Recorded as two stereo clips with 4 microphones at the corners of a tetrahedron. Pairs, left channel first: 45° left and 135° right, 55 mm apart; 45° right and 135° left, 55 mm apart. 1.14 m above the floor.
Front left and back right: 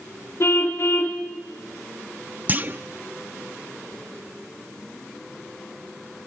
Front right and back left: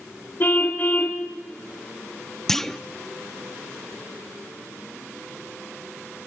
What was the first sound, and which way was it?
A car horn, 5° left.